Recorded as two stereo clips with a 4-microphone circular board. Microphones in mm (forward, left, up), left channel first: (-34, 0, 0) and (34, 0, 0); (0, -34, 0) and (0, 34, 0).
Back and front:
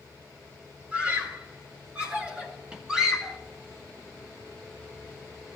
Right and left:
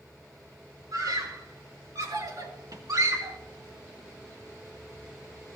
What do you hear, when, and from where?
0.9 s a scream: 70° left, 5 m; by 3.4 s 80° left, 2.5 m